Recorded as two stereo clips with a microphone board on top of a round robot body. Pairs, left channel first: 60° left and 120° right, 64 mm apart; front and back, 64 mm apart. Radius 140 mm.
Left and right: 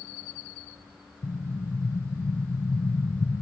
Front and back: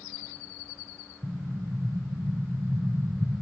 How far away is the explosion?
About 0.9 m.